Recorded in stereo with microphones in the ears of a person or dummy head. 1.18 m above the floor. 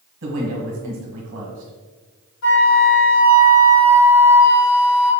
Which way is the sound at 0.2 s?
50° right (ahead or behind).